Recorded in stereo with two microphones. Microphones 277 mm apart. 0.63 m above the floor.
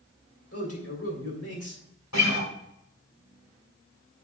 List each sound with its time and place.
0.5 s a man speaking: 55° left (ahead or behind), 2.5 m
2.1 s a guitar: 80° left, 1.9 m